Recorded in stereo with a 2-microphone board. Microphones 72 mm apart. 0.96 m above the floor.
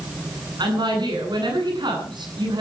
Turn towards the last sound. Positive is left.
turn(degrees=-80)